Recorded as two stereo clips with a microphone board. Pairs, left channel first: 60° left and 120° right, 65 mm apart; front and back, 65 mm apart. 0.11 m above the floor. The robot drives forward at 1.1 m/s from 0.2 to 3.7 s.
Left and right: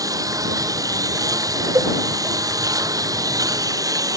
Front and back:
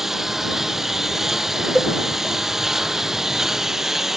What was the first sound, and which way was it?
A lawn mower, 95° right.